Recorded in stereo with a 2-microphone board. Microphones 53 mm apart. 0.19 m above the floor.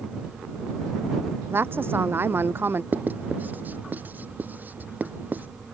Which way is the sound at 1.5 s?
40° right (ahead or behind).